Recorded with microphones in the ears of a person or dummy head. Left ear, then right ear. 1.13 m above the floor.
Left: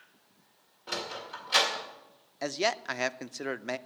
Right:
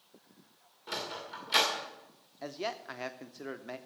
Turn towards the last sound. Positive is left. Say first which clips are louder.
# left 8 dB
turn(degrees=65)  # may be behind; listen again after turning